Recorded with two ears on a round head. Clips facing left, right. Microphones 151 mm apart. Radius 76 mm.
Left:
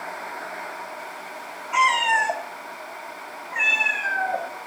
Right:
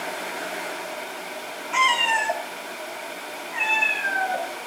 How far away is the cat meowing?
About 1.9 m.